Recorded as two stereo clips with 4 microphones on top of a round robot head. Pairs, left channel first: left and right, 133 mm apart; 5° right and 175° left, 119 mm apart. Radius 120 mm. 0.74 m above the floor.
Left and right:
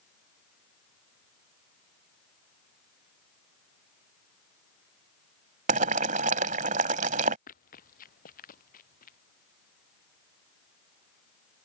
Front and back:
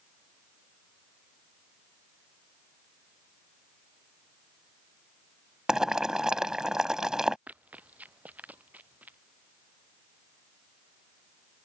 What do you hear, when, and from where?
5.7 s boiling: 100° right
7.5 s running footsteps: 95° left; by 9.2 s 100° left